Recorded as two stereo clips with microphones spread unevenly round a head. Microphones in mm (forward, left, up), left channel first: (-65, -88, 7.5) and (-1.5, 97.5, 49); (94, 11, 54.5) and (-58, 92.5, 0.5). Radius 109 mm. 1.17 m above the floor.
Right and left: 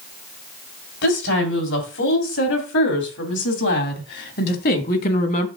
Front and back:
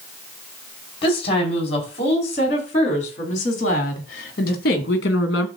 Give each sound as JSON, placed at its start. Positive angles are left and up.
{"t": 1.0, "sound": "a woman speaking", "azimuth_deg": -95, "distance_m": 4.0}